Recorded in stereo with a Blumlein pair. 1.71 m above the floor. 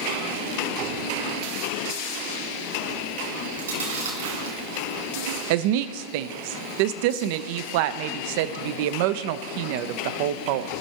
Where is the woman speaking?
50° right, 0.6 m.